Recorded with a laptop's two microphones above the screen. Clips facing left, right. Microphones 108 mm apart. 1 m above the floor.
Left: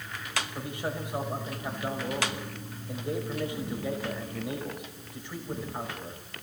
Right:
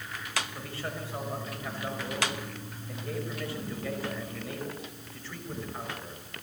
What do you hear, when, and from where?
0.6 s a man speaking: 15° left (ahead or behind), 5.5 m